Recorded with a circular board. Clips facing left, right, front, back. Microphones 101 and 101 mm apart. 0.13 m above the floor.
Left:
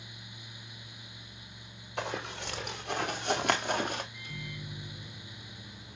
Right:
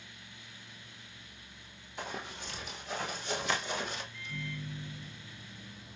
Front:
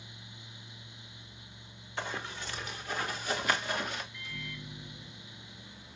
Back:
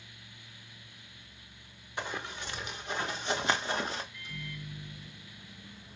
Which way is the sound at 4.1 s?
105° left.